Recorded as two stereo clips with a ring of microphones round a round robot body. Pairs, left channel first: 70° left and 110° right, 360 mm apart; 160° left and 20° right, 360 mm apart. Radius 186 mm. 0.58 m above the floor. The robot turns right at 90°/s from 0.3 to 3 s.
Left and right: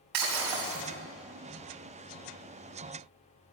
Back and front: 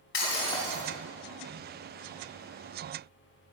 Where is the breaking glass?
145° right, 3 m; by 0.8 s 95° right, 3 m.